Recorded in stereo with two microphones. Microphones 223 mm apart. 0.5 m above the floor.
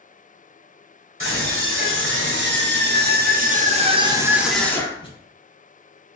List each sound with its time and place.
1.2 s a scream: 65° right (ahead or behind), 1.9 m; by 5.1 s 25° left (ahead or behind), 0.8 m